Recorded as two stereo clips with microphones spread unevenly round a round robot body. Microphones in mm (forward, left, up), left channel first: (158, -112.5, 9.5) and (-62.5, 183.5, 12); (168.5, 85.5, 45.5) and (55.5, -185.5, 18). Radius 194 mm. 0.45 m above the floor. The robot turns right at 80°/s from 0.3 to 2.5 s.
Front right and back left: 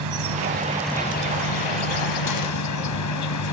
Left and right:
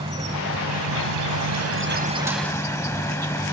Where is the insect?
170° left; by 3.5 s 15° right.